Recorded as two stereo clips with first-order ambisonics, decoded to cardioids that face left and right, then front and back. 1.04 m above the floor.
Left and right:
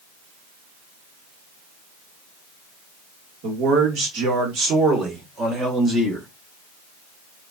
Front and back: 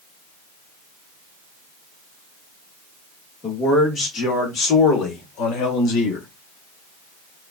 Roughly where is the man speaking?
Right.